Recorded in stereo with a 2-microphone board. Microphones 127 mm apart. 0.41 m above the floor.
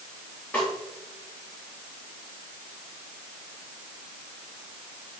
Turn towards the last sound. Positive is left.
turn(degrees=20)  # may be behind; listen again after turning